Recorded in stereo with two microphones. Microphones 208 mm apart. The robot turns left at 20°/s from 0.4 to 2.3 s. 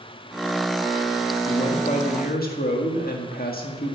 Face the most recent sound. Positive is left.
turn(degrees=45)  # may be behind; listen again after turning